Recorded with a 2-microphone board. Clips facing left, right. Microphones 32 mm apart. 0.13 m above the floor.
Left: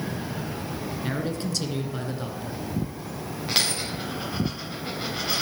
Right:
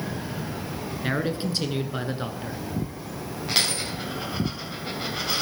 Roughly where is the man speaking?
Right.